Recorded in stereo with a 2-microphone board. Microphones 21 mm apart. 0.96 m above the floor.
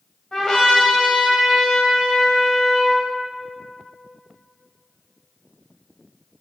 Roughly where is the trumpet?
Left.